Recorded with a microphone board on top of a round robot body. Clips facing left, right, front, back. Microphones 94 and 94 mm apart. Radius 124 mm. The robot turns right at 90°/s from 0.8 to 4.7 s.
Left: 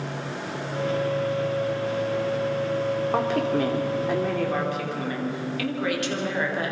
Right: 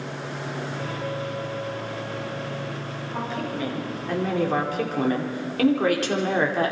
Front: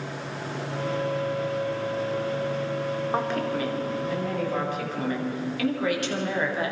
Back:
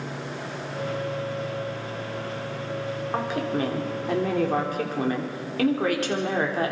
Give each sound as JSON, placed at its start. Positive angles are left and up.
{"t": 3.1, "sound": "a woman speaking", "azimuth_deg": 85, "distance_m": 3.0}